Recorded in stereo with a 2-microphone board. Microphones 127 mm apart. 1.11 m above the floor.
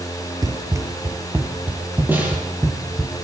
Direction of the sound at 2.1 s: 15° right (ahead or behind).